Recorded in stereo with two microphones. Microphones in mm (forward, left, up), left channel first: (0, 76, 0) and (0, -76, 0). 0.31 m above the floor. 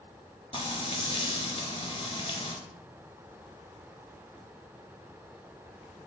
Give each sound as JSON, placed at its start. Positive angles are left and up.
{"t": 0.5, "sound": "frying", "side_deg": 45, "distance_m": 0.7}